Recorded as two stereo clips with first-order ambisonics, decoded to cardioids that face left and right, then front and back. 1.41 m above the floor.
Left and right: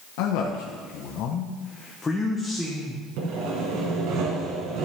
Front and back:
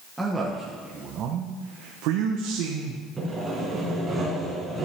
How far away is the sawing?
About 2.5 m.